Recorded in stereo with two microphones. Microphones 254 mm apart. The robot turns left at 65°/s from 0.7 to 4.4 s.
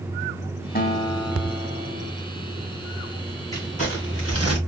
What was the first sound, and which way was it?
A guitar, 40° left.